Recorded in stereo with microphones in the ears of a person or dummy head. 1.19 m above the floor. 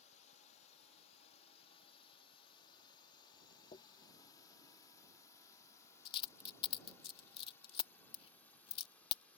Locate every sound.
0.0 s a drone: 45° left (ahead or behind); by 9.4 s 10° left (ahead or behind)
3.7 s a dropped coin: 35° left (ahead or behind)